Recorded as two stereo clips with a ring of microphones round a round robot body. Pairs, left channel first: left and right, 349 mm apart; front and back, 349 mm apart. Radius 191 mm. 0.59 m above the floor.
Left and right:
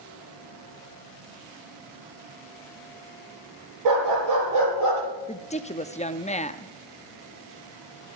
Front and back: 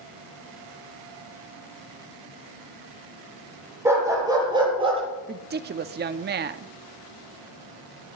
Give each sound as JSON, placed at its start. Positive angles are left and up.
{"t": 3.9, "sound": "a dog barking", "azimuth_deg": -95, "distance_m": 7.5}
{"t": 5.3, "sound": "a woman speaking", "azimuth_deg": 145, "distance_m": 0.9}